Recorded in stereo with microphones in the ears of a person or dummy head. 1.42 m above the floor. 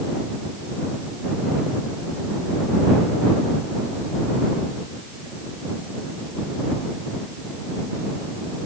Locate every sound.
Only background noise.